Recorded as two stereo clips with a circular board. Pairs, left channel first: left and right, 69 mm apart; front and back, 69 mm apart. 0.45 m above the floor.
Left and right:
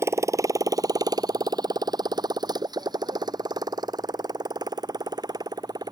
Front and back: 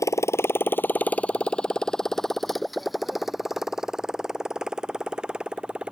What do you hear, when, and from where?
0.0 s a motorcycle: 40° right; by 5.9 s 105° right